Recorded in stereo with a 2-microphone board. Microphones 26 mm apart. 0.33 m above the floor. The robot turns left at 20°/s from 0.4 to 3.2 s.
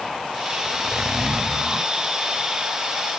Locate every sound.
0.7 s a zipper: 35° right (ahead or behind), 0.9 m; by 1.9 s 20° right (ahead or behind), 0.9 m